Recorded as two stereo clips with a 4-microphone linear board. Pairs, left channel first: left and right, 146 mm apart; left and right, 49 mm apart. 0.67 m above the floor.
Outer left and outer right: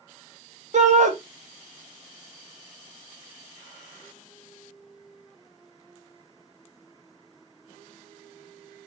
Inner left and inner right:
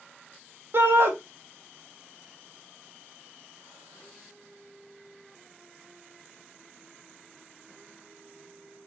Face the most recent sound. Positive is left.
turn(degrees=-50)  # may be behind; listen again after turning